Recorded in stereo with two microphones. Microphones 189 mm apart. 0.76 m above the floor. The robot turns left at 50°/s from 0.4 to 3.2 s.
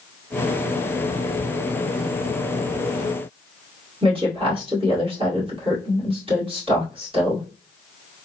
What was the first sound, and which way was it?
A woman speaking, 30° right (ahead or behind).